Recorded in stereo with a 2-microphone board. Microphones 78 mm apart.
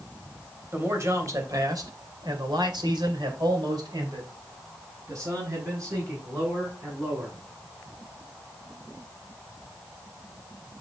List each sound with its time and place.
0.7 s a man speaking: 35° right (ahead or behind), 3 m